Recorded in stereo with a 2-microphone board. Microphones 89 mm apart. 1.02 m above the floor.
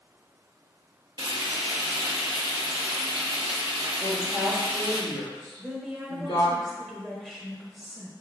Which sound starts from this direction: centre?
A woman speaking, at 5.6 s.